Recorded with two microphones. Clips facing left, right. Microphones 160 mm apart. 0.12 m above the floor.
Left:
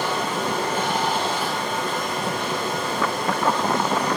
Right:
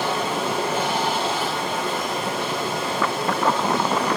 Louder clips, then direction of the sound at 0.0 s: Right 1 dB; 10° right (ahead or behind).